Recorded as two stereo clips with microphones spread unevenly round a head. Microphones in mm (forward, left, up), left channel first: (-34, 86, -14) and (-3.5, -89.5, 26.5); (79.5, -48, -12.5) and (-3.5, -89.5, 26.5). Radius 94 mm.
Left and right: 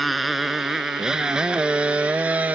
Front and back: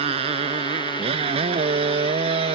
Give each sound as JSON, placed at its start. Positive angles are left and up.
{"t": 0.0, "sound": "a motorcycle", "azimuth_deg": -170}